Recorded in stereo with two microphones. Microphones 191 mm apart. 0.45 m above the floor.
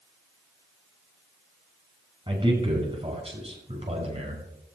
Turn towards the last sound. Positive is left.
turn(degrees=-35)  # may be behind; listen again after turning